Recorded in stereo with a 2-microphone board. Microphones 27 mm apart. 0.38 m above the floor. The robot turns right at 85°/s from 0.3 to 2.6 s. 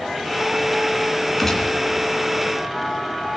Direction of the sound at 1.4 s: 5° left.